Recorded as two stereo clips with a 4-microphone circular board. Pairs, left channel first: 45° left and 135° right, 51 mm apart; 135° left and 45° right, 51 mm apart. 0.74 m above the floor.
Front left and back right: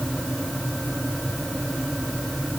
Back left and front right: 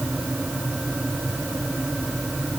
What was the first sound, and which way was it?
Only background noise.